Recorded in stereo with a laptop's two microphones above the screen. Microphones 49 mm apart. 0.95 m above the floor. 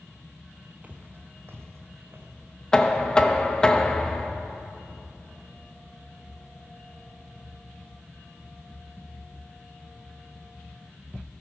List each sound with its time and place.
0.8 s footsteps: 35° right (ahead or behind), 1.2 m; by 2.3 s 65° right (ahead or behind), 3 m
2.7 s knocking: 20° left (ahead or behind), 0.8 m